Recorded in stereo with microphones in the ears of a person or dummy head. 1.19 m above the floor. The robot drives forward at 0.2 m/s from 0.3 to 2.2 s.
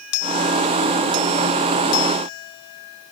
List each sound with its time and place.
Only background noise.